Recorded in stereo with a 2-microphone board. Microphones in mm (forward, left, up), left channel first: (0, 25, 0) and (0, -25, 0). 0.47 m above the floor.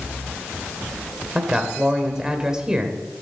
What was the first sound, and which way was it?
A man speaking, 15° right (ahead or behind).